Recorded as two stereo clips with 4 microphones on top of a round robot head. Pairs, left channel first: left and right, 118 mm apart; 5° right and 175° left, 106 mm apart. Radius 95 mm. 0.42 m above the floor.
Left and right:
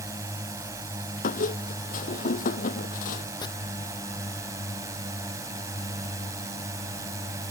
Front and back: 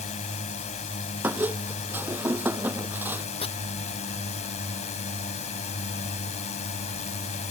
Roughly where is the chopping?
Ahead left.